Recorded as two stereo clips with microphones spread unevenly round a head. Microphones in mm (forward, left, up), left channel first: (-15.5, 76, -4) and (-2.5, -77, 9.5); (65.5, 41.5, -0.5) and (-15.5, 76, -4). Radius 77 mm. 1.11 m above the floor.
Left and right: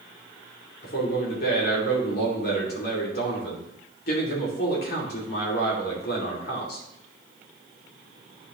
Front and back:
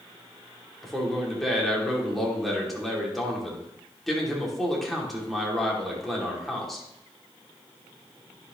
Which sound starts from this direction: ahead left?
A man speaking, at 0.8 s.